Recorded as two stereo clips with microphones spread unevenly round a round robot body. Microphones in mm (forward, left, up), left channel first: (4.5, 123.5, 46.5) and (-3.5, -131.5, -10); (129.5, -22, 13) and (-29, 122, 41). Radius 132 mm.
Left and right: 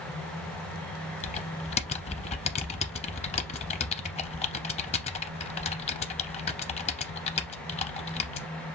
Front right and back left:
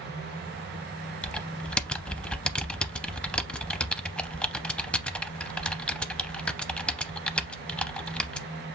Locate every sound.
1.2 s typing on a keyboard: 50° left, 0.6 m